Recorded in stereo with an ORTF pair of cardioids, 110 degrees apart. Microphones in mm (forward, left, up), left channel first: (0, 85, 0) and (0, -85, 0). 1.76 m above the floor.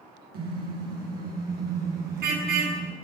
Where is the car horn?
60° right, 10 m; by 2.9 s 70° right, 7 m.